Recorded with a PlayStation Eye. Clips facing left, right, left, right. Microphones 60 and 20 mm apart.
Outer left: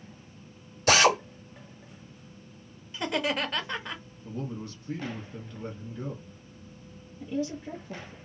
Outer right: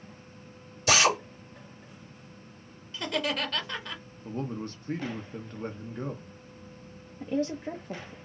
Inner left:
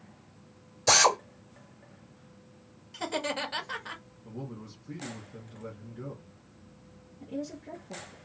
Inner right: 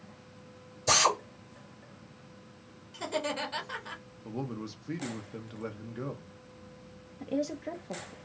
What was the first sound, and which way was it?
A drill, 45° left (ahead or behind).